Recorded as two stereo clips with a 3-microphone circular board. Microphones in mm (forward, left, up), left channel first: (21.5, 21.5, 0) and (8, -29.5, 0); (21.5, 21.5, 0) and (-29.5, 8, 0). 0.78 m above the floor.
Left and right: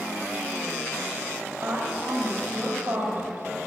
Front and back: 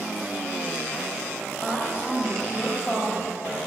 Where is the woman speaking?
60° right, 3.5 m.